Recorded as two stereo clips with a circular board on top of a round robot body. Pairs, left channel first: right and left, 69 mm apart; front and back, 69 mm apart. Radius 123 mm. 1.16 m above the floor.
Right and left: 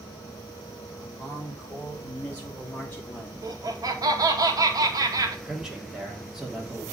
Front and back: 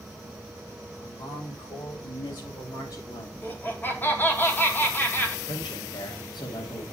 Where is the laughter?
60° left, 2.5 m.